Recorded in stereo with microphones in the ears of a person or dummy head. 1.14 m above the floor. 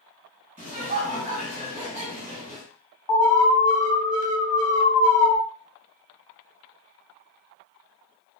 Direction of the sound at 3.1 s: 20° left (ahead or behind).